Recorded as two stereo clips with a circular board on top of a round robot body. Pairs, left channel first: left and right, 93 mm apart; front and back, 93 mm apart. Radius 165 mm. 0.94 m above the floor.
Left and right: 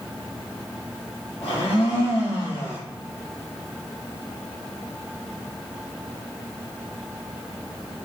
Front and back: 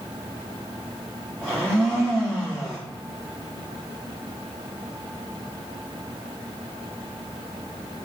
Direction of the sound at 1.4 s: 95° left.